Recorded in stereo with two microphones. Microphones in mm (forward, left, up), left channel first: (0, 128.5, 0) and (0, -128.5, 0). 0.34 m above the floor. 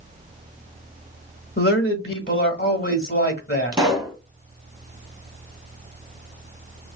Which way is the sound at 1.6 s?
40° left (ahead or behind).